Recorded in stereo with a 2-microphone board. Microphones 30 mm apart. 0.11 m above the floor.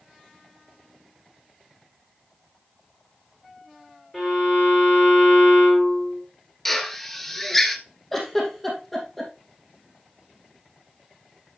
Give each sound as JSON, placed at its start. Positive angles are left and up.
{"t": 4.1, "sound": "a violin", "side_deg": 5, "distance_m": 5.5}
{"t": 6.7, "sound": "a drill", "side_deg": 5, "distance_m": 0.9}
{"t": 8.1, "sound": "a giggle", "side_deg": 5, "distance_m": 3.0}